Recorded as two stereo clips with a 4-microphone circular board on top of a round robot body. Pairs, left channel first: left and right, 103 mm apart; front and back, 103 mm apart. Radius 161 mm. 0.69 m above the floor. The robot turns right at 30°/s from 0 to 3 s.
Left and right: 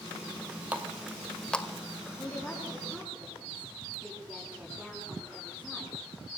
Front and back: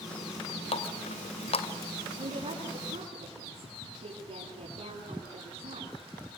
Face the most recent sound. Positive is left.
turn(degrees=-170)